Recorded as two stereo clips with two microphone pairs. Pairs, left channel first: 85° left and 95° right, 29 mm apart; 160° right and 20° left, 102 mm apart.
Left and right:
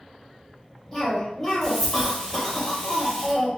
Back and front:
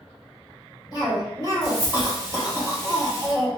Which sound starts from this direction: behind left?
A cough, at 0.9 s.